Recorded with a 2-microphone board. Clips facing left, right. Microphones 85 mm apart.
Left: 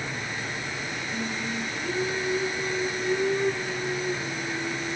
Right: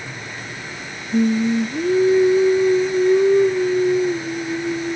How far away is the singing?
About 1.4 m.